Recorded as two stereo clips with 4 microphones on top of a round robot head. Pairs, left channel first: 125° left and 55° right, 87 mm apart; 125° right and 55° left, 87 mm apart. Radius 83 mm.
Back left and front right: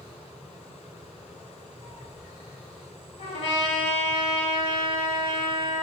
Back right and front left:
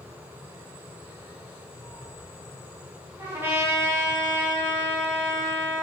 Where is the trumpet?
120° left, 5 m.